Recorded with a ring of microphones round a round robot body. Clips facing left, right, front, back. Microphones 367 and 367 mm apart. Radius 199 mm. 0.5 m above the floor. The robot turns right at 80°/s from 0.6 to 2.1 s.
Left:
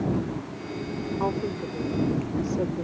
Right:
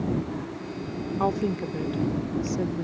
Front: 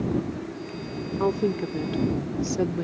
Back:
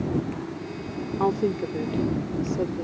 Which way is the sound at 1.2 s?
105° right.